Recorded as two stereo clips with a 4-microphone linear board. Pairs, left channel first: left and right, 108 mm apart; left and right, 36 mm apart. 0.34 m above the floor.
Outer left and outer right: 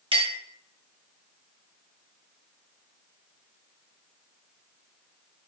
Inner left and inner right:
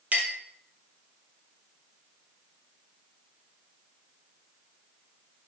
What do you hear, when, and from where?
0.1 s a clink: 50° right (ahead or behind), 0.8 m